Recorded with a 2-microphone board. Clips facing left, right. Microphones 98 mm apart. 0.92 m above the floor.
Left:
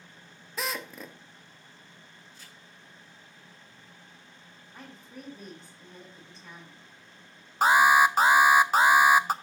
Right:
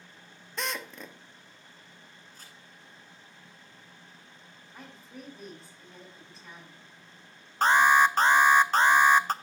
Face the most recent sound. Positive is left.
turn(degrees=10)  # may be behind; listen again after turning